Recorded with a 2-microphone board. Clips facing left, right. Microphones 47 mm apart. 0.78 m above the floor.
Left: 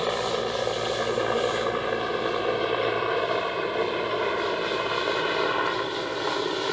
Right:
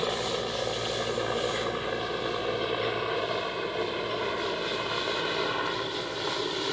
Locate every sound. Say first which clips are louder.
0.0 s a helicopter: left 4 dB; 20° left (ahead or behind)